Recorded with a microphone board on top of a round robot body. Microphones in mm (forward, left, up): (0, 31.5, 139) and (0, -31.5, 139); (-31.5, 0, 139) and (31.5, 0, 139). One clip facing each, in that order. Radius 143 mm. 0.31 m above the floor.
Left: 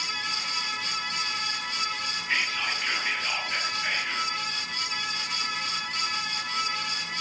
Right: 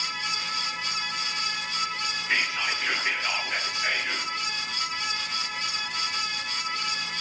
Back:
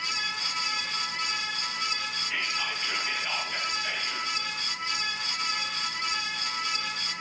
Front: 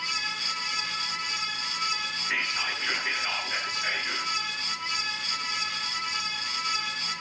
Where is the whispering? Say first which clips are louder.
Right 1 dB, front 3 dB; 15° right, 8.5 m.